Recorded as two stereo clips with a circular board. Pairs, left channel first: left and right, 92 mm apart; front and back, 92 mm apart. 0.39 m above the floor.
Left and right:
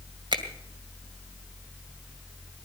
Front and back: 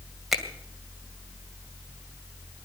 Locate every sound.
0.3 s a finger snap: 90° right, 2 m